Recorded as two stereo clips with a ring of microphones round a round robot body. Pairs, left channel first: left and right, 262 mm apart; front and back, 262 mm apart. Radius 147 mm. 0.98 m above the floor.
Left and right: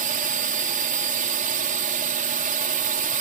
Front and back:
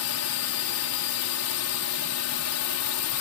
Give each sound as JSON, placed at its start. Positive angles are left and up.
{"t": 0.0, "sound": "a drone", "azimuth_deg": -30}